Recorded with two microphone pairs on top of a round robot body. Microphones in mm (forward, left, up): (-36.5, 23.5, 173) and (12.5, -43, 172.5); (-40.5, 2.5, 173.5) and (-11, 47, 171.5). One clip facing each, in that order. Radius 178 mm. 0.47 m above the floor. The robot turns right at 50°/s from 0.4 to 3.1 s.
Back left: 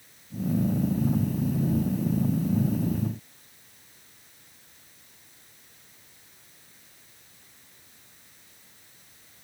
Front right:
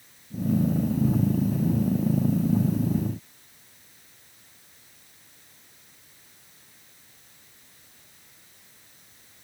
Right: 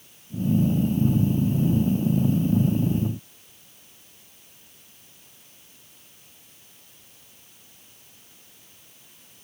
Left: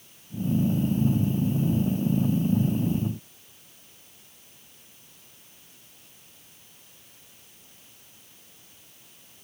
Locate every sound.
Only background noise.